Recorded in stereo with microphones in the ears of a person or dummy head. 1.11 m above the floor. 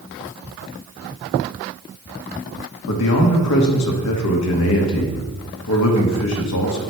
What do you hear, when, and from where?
2.9 s a man speaking: 80° left, 1.1 m